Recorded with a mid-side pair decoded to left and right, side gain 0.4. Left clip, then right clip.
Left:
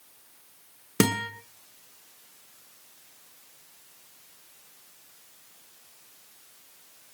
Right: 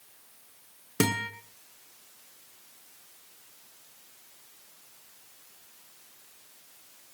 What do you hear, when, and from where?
1.0 s a guitar: 25° left, 6.5 m